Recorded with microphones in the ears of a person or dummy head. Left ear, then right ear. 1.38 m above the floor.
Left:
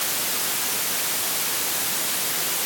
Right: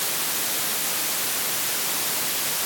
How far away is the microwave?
No microwave in this recording.